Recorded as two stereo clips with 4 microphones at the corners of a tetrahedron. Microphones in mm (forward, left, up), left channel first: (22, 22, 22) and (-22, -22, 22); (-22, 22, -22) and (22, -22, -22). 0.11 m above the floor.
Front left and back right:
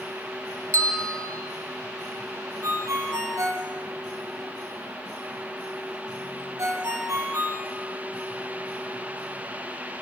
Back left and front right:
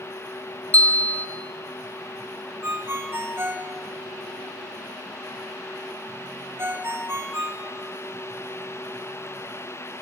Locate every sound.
0.7 s a bell: 165° right, 2.5 m
2.6 s a ringtone: 100° right, 3 m